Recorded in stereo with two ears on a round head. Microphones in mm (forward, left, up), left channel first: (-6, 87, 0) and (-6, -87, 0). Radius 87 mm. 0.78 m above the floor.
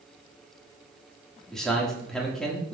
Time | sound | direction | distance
1.5 | a man speaking | 5° left (ahead or behind) | 2 m